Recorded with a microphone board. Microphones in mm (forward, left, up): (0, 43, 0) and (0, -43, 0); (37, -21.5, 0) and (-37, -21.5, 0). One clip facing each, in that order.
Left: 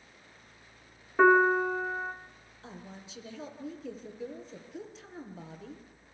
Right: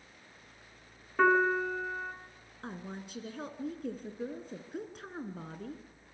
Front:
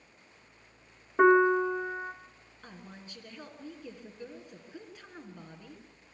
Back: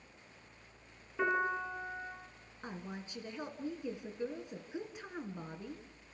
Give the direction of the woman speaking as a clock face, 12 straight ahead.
4 o'clock.